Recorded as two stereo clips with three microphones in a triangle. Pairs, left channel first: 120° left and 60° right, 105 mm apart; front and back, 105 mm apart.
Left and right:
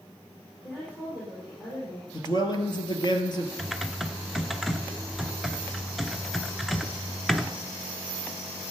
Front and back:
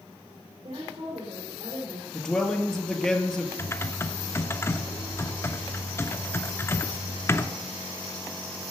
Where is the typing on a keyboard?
25° left, 0.7 m.